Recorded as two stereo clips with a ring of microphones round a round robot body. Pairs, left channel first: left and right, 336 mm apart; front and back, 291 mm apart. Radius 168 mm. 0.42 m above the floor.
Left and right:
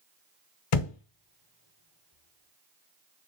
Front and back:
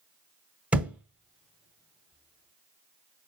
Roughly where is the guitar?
No guitar in this recording.